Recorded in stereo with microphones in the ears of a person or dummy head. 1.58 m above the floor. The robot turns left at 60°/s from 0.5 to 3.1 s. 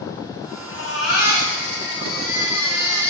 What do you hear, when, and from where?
0.7 s a baby crying: 160° left, 3 m; by 3.1 s 10° left, 3 m